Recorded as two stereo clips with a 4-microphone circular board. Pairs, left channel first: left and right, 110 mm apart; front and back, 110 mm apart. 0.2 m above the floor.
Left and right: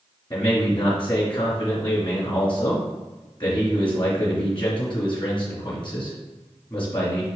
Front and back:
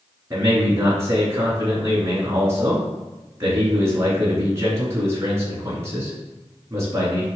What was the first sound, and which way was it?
A man speaking, 120° left.